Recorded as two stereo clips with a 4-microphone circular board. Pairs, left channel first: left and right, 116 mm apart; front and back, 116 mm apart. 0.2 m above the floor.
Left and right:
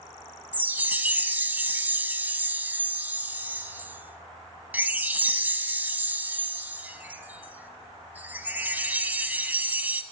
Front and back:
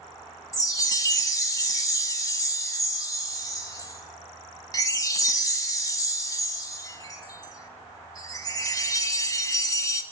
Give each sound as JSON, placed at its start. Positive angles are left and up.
{"t": 0.5, "sound": "a chime", "azimuth_deg": -25, "distance_m": 0.7}